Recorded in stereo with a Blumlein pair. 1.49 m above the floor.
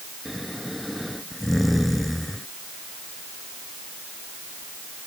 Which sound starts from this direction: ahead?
Snoring, at 0.2 s.